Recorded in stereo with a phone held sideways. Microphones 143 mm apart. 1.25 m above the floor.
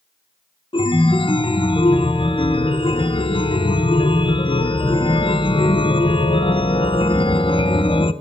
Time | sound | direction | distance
0.7 | a chime | 40° left (ahead or behind) | 0.6 m